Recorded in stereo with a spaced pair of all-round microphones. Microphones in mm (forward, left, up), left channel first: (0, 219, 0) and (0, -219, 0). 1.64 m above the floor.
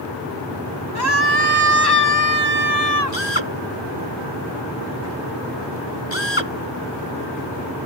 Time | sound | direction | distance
0.9 | a scream | 55° left (ahead or behind) | ?
3.1 | a drill | 80° left | ?